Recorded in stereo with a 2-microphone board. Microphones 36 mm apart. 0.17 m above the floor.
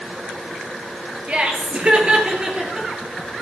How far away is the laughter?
About 3.5 m.